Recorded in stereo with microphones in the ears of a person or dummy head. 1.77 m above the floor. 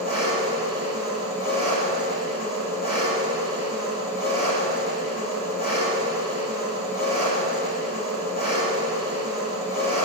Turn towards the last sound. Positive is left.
turn(degrees=50)  # may be behind; listen again after turning